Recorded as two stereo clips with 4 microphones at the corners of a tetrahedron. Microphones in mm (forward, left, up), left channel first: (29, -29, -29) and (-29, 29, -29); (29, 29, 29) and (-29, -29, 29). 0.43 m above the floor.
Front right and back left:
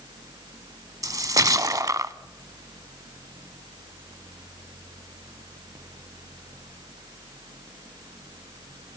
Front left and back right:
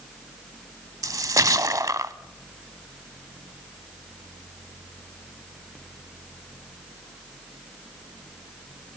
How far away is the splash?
About 0.6 m.